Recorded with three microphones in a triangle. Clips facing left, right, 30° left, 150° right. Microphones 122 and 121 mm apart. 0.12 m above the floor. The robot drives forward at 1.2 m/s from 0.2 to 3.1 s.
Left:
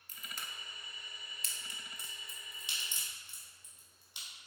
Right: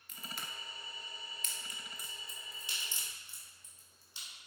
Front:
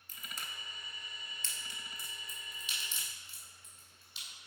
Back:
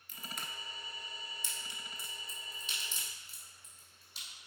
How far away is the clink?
No clink in this recording.